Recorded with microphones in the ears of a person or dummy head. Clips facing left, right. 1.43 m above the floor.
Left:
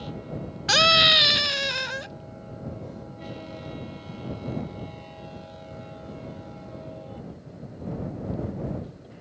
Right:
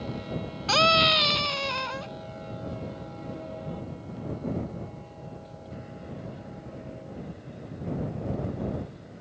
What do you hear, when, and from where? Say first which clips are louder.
0.7 s a scream: even; 20° left (ahead or behind)